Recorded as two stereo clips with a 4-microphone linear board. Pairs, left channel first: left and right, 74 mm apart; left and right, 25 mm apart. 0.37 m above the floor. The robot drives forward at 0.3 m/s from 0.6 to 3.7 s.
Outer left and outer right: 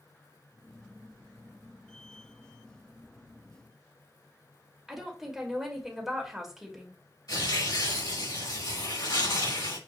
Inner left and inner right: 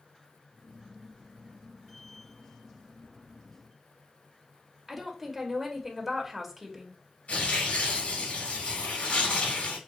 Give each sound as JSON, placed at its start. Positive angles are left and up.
{"t": 4.9, "sound": "a woman speaking", "side_deg": -5, "distance_m": 1.4}
{"t": 7.3, "sound": "tearing paper", "side_deg": 70, "distance_m": 3.0}